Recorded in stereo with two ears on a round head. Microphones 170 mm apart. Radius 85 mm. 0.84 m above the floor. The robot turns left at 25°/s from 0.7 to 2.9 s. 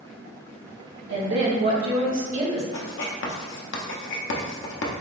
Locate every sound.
1.1 s a woman speaking: 105° right, 1.5 m; by 2.6 s 145° right, 1.5 m
2.7 s writing: 65° left (ahead or behind), 0.7 m; by 4.9 s 70° left (ahead or behind), 0.7 m